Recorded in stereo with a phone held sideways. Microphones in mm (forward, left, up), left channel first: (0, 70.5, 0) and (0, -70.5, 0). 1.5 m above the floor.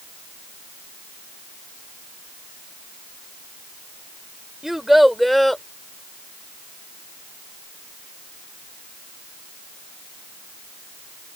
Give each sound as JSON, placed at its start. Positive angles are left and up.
{"t": 4.6, "sound": "a child speaking", "side_deg": 0}